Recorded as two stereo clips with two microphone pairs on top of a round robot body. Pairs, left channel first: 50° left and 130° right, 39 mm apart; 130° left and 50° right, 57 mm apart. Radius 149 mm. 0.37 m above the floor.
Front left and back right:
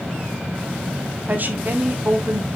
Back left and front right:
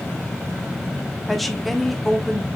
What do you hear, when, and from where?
1.3 s a woman speaking: 130° right, 1.8 m